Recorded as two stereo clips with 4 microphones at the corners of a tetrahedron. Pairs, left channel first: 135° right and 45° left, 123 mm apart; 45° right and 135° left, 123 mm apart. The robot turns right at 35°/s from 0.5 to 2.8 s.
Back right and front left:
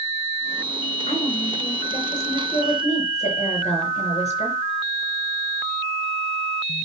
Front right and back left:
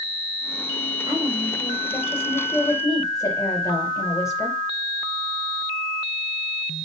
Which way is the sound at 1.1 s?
170° right.